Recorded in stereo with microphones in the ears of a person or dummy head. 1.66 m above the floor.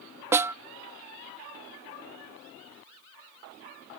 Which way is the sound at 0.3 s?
5° right (ahead or behind).